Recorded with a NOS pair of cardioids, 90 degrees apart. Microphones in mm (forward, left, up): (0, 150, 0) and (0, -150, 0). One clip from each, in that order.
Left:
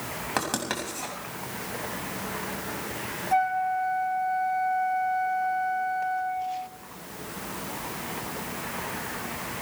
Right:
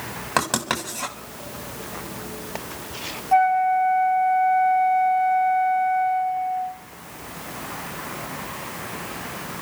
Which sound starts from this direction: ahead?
A flute, at 3.3 s.